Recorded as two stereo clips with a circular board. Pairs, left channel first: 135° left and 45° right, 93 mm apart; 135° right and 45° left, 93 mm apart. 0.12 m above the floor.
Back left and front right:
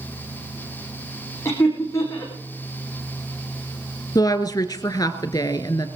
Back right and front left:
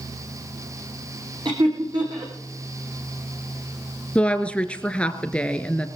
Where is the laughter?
75° left, 7.5 m.